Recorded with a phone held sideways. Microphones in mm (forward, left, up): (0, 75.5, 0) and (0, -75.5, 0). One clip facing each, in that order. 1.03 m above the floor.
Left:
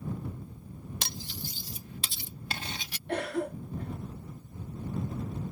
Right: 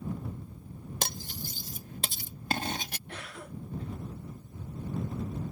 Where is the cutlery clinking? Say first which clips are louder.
Right 6 dB; 50° right (ahead or behind).